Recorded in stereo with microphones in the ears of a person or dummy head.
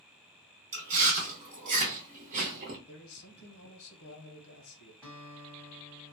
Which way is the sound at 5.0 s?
10° right (ahead or behind).